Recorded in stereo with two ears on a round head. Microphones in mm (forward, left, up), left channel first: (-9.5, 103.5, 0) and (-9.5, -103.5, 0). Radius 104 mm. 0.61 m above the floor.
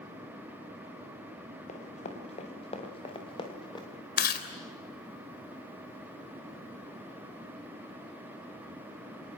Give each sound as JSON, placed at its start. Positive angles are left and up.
{"t": 1.7, "sound": "running footsteps", "side_deg": 30, "distance_m": 5.0}
{"t": 4.2, "sound": "chewing", "side_deg": 45, "distance_m": 3.0}